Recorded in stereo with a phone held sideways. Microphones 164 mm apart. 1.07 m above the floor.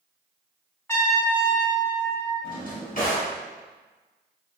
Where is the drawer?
50° left (ahead or behind), 1.0 m.